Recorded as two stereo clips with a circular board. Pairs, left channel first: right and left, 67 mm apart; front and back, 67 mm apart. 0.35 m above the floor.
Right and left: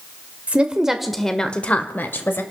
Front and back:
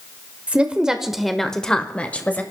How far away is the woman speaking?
About 1.0 m.